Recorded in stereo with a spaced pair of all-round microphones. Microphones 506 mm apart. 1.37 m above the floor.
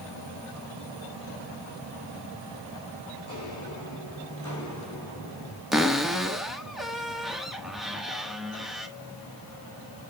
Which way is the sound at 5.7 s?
Centre (ahead or behind).